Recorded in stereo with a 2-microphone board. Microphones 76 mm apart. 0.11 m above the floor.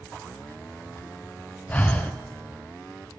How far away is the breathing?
About 1.5 m.